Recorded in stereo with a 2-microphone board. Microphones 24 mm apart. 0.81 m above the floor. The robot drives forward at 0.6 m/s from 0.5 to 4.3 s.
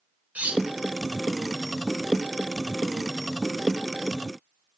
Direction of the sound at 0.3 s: 75° right (ahead or behind).